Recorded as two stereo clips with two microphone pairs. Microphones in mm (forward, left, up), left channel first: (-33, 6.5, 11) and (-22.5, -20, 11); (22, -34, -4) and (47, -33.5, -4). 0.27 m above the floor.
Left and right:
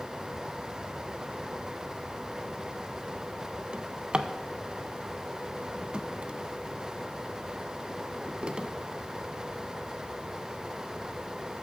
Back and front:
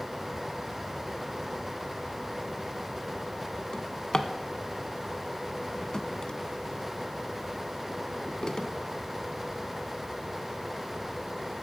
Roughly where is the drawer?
Behind right.